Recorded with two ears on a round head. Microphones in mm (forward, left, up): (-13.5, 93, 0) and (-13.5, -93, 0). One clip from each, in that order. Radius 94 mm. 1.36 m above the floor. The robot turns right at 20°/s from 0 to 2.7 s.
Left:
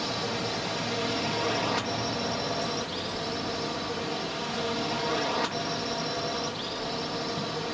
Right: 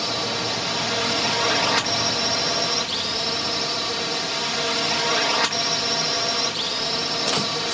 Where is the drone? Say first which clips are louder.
Right 6 dB; 140° right; by 7.8 s 85° right.